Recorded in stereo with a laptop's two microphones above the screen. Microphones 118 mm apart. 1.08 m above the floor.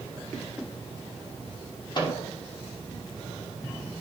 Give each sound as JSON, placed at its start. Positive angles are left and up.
{"t": 1.9, "sound": "a microwave", "side_deg": 40, "distance_m": 1.5}